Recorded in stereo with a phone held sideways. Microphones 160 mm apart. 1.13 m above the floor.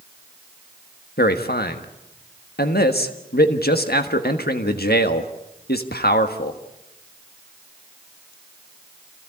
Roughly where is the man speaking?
Left.